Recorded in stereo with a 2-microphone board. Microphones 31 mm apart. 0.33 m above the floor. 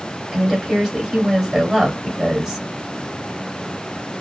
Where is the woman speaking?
15° right (ahead or behind), 1.6 m.